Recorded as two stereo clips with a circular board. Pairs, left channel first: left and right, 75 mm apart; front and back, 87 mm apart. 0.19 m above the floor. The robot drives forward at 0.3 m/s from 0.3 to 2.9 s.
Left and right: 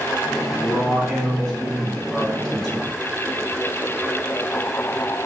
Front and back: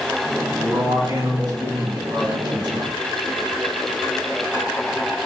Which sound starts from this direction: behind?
A man speaking, at 0.6 s.